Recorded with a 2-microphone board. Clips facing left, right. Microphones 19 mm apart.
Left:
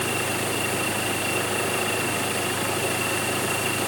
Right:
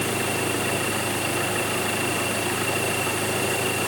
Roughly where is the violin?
I don't hear a violin.